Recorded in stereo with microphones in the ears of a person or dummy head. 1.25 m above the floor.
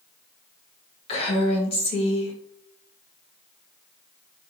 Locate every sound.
1.1 s a woman speaking: 35° left (ahead or behind), 1.6 m